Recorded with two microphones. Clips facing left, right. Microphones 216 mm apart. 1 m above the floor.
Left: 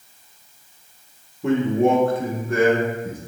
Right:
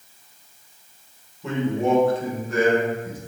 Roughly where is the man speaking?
Left.